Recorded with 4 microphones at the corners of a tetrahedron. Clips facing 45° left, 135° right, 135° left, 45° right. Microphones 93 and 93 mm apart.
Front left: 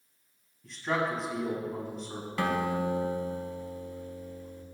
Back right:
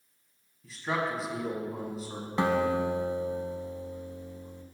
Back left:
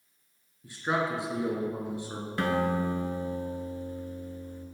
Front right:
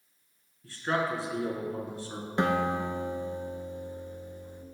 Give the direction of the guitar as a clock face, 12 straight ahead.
3 o'clock.